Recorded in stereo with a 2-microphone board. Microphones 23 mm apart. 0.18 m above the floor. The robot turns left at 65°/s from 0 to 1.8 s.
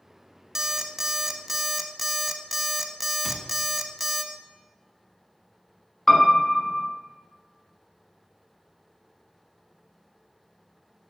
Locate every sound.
0.6 s an alarm clock: 20° right (ahead or behind), 0.5 m; by 4.2 s 5° right (ahead or behind), 0.5 m
3.2 s a cupboard door: 5° left (ahead or behind), 1.1 m
6.1 s a piano: 30° left (ahead or behind), 0.9 m